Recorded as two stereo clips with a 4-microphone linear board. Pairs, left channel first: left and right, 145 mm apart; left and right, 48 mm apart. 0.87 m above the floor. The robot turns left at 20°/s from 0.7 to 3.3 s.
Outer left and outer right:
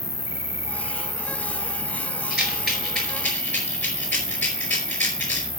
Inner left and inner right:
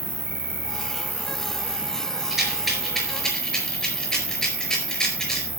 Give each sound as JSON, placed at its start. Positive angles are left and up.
{"t": 0.0, "sound": "an insect", "azimuth_deg": -20, "distance_m": 1.0}
{"t": 2.3, "sound": "a rattle", "side_deg": -10, "distance_m": 4.5}